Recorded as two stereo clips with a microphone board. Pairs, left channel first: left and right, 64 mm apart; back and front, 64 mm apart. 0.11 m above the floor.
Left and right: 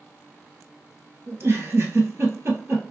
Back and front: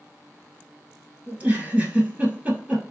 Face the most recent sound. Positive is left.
turn(degrees=-55)